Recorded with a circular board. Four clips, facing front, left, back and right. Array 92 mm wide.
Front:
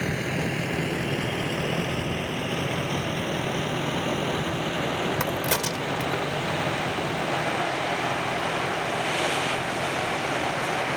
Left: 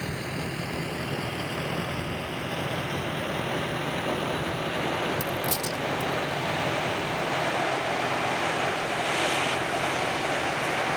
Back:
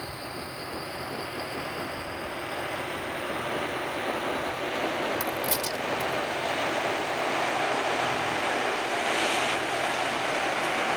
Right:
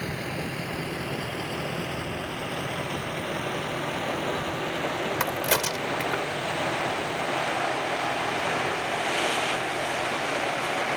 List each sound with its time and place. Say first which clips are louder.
0.0 s a vehicle: right 1 dB, front 9 dB; 5° right; by 11.0 s 15° left
5.2 s a crack: right 3 dB, front 3 dB; 60° right